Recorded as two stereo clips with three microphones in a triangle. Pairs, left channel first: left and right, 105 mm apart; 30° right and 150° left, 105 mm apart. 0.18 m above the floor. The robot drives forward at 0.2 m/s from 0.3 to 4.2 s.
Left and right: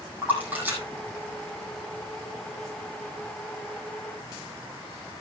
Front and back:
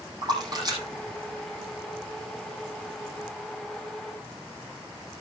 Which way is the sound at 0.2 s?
160° right.